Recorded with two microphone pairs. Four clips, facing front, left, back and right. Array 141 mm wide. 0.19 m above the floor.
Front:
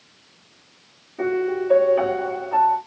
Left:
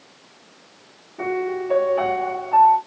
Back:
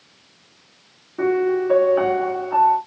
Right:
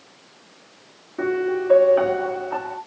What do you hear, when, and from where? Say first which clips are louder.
1.2 s a piano: right 2 dB, back 3 dB; 130° right, 3 m